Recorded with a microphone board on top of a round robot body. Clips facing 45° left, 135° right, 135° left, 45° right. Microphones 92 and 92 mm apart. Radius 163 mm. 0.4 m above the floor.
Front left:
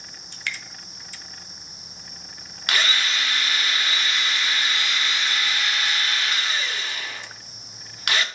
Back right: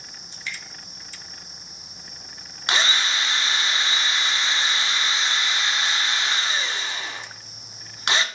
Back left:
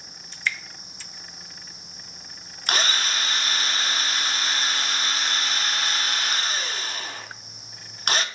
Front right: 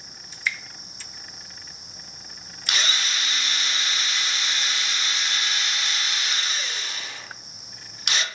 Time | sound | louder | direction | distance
0.3 | dripping | front left 3 dB, back left 1 dB | 40° left | 0.6 m
2.7 | a drill | back right 1 dB, back left 3 dB | 165° left | 0.7 m